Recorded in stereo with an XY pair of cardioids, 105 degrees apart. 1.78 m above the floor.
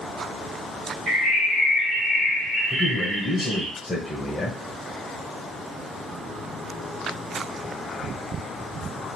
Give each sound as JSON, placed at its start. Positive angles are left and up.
{"t": 1.1, "sound": "a bird", "azimuth_deg": -45, "distance_m": 1.6}
{"t": 2.7, "sound": "a man speaking", "azimuth_deg": 20, "distance_m": 1.0}